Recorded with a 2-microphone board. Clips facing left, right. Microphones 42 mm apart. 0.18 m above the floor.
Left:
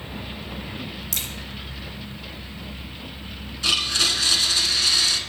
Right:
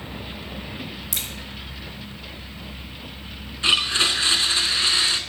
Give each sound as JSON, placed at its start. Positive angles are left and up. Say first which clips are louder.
{"t": 1.1, "sound": "a crack", "louder": "even", "side_deg": -15, "distance_m": 1.9}
{"t": 3.6, "sound": "a blender", "louder": "right 2 dB", "side_deg": -25, "distance_m": 0.9}